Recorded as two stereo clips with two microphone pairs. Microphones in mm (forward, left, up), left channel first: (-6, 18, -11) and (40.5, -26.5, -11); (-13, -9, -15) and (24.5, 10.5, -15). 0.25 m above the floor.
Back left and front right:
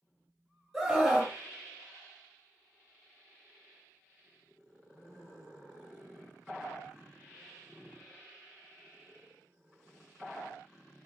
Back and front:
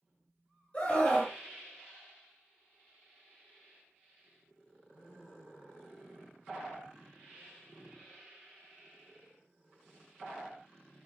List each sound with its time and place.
0.7 s a scream: 135° right, 1.5 m